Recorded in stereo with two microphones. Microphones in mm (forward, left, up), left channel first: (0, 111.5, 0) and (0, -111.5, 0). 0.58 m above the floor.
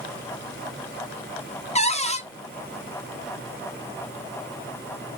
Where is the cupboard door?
30° left (ahead or behind), 0.6 m.